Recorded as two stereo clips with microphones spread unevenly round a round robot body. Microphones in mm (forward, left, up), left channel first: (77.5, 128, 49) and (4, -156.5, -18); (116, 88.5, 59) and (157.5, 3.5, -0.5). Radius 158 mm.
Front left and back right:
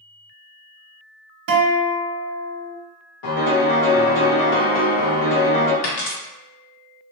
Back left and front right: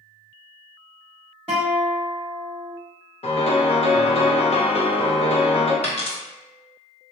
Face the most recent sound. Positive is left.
turn(degrees=90)